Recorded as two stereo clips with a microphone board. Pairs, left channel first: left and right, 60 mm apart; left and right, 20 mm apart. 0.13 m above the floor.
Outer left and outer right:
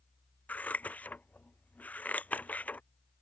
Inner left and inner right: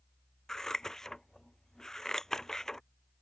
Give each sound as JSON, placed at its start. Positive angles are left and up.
{"t": 0.5, "sound": "scissors", "side_deg": 25}